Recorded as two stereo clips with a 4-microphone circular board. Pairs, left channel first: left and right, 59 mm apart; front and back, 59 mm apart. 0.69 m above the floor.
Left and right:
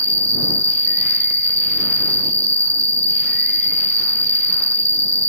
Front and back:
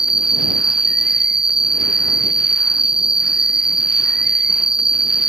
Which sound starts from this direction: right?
An insect, at 0.0 s.